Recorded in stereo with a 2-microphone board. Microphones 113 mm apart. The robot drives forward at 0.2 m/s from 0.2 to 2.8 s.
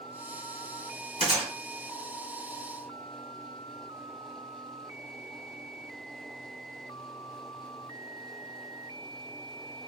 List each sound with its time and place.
1.2 s a gunshot: 75° right (ahead or behind), 1.7 m; by 1.5 s 70° right (ahead or behind), 1.7 m